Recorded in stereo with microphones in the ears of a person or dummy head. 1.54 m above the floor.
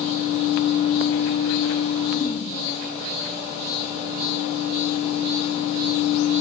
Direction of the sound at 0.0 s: 30° left (ahead or behind).